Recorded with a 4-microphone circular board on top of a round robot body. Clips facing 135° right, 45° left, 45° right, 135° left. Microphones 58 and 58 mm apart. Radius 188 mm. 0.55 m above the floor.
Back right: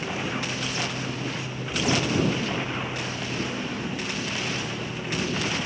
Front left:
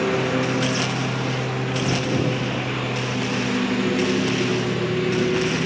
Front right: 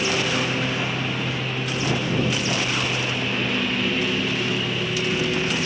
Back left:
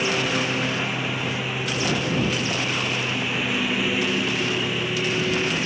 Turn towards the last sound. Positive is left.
turn(degrees=55)